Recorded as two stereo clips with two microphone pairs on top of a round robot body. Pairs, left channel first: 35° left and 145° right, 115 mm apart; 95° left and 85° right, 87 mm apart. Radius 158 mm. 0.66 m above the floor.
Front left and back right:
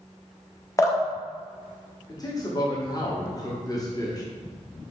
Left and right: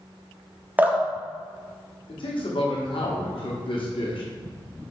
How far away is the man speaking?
About 1.5 m.